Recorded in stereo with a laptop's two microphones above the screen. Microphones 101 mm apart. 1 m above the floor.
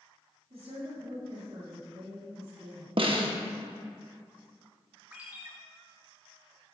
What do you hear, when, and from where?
0.5 s a woman speaking: 70° right (ahead or behind), 2 m
3.0 s a snare drum: 55° right (ahead or behind), 1.0 m
5.1 s a ringtone: 15° right (ahead or behind), 1.6 m